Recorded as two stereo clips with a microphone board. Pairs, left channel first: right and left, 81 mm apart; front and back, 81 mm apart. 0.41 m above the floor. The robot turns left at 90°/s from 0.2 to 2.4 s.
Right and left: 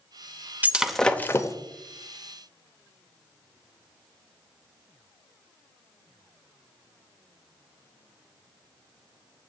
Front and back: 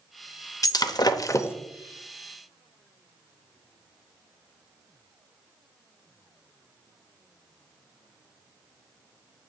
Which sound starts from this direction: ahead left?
Breaking glass, at 0.6 s.